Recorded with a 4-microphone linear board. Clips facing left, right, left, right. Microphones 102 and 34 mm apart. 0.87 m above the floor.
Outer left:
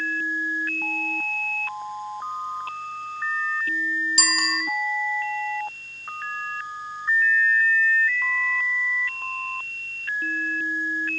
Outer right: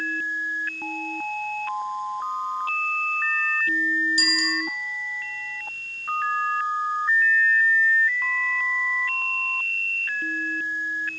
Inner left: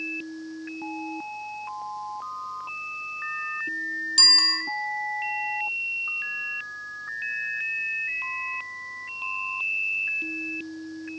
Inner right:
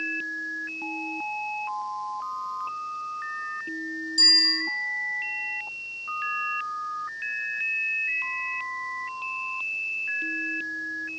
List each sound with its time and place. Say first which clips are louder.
4.2 s a bicycle bell: even, inner left 1 dB; 75° left (ahead or behind), 2 m